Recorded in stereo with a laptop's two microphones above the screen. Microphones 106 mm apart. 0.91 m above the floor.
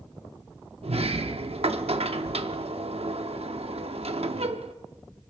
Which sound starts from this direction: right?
A sliding door, at 0.8 s.